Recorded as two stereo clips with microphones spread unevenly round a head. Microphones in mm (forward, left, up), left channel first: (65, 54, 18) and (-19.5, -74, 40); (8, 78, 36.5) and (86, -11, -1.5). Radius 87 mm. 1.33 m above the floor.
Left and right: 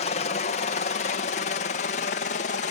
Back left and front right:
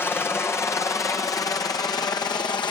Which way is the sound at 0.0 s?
50° left.